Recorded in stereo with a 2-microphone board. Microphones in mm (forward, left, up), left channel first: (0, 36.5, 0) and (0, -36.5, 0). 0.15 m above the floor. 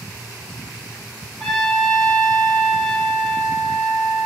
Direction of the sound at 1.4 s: 10° left (ahead or behind).